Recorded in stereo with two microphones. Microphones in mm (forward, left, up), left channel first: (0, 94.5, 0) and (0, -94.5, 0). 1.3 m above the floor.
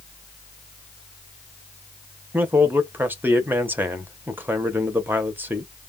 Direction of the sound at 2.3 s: 10° right (ahead or behind).